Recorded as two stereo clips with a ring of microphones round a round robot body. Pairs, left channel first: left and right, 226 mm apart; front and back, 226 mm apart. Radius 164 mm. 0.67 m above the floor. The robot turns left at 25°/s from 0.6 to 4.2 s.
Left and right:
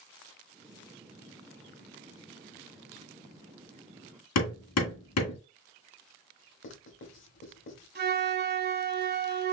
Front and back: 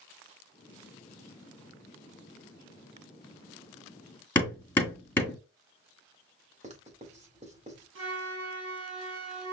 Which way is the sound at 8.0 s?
130° right.